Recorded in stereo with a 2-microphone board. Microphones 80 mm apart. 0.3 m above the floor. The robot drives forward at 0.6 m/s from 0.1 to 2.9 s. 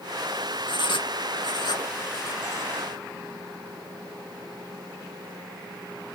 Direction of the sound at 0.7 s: 75° left (ahead or behind).